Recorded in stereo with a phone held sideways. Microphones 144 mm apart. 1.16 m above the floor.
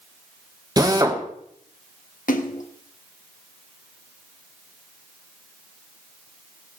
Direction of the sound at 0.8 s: 25° right (ahead or behind).